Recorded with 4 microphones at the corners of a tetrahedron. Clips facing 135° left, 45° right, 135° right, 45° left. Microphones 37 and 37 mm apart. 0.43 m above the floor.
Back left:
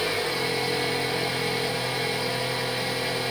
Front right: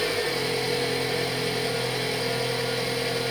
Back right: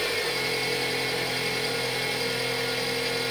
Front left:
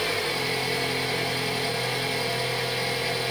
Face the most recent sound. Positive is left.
turn(degrees=95)